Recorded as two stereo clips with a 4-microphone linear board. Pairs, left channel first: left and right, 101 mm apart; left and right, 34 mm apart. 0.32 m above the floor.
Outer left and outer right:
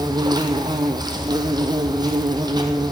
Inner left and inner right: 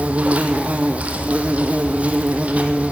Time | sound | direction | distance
0.0 | an insect | 40° right (ahead or behind) | 1.5 m